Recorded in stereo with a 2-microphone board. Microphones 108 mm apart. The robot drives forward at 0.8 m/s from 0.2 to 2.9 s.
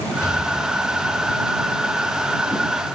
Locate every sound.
0.2 s an explosion: 20° left (ahead or behind), 5 m; by 1.4 s 25° left (ahead or behind), 4.5 m